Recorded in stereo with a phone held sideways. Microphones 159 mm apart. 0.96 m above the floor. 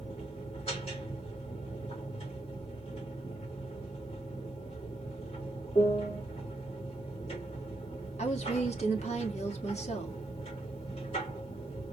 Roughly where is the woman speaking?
Left.